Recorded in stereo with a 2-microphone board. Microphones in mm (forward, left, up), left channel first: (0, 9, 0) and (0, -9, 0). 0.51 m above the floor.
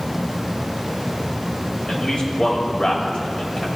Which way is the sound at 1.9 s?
55° left (ahead or behind).